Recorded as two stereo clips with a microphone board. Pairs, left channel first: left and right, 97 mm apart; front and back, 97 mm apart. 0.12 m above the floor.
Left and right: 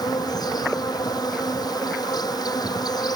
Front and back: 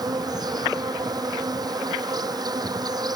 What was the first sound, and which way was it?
An insect, 135° left.